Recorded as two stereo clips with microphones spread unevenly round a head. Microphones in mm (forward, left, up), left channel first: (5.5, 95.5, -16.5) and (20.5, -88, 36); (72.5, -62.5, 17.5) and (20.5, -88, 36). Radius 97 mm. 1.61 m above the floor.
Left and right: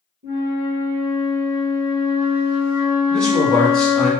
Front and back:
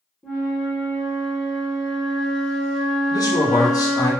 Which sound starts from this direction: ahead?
A man speaking, at 3.1 s.